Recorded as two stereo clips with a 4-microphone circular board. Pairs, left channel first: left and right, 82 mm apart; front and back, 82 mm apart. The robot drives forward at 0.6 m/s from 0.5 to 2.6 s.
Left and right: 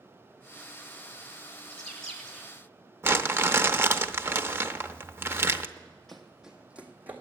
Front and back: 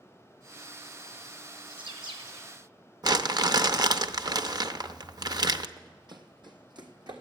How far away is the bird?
About 2.5 m.